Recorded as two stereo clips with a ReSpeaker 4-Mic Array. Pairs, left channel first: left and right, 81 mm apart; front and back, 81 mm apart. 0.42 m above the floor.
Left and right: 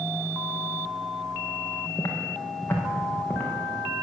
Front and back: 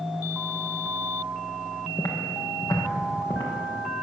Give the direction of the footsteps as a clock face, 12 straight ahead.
11 o'clock.